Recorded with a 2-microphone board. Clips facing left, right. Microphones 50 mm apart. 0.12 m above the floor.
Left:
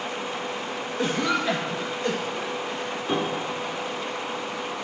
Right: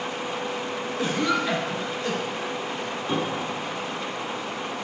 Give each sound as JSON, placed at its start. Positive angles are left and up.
{"t": 1.0, "sound": "a cough", "side_deg": 0, "distance_m": 1.9}
{"t": 3.1, "sound": "a piano", "side_deg": 5, "distance_m": 1.2}